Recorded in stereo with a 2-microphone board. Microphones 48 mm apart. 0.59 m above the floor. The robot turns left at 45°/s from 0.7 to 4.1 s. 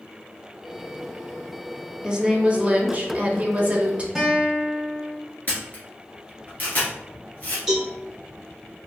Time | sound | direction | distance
2.0 | a woman speaking | 35° right | 0.8 m
4.2 | a guitar | 5° right (ahead or behind) | 1.3 m
5.5 | a camera shutter | 40° left (ahead or behind) | 1.5 m
7.7 | a cowbell | centre (ahead or behind) | 1.9 m